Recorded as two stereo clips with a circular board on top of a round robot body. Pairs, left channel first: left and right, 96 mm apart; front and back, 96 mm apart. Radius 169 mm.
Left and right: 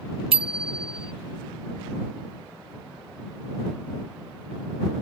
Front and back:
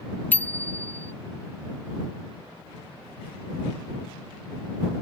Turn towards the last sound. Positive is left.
turn(degrees=-70)